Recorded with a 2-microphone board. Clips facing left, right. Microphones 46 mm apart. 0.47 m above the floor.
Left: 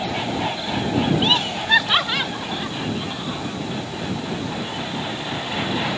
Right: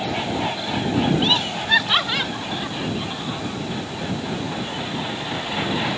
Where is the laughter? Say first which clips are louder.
Left 1 dB; 15° left (ahead or behind); by 3.4 s centre (ahead or behind).